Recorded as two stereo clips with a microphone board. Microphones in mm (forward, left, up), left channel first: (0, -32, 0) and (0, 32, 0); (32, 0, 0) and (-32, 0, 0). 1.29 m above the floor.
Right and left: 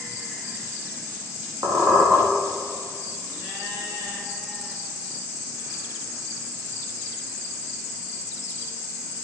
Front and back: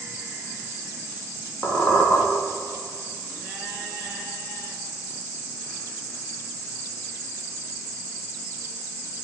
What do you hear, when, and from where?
1.6 s a squeak: 70° left, 3 m